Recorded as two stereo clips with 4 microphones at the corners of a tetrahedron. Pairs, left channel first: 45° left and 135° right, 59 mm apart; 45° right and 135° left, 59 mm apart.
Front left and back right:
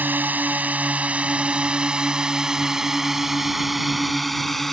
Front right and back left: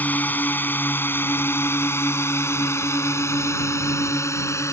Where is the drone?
90° right; by 4.7 s 40° right.